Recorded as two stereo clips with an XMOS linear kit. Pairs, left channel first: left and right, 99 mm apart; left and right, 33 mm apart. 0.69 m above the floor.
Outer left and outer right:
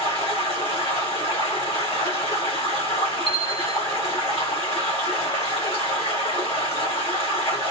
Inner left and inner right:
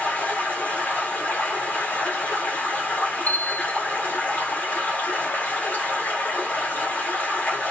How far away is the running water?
About 1.8 m.